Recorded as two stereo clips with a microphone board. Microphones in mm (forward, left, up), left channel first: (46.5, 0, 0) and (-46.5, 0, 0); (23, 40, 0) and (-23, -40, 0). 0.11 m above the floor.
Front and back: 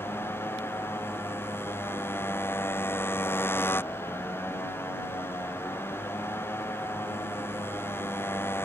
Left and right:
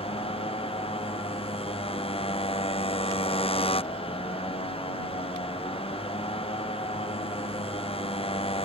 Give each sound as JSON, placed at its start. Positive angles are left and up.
{"t": 0.0, "sound": "a motorcycle", "azimuth_deg": 65}